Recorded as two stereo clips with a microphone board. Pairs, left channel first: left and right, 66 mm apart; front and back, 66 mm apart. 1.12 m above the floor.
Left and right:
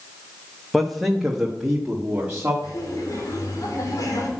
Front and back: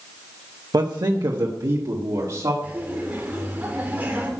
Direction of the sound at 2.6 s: 115° left.